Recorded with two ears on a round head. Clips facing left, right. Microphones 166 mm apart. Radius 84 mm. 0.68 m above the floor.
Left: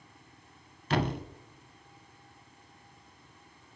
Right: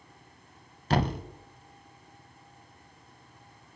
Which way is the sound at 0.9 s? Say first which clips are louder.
Right 2 dB; 35° right (ahead or behind).